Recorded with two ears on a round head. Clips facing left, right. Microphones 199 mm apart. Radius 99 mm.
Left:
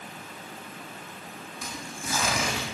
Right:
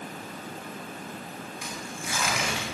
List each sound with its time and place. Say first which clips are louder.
1.6 s tearing paper: left 3 dB; 35° left (ahead or behind), 5.5 m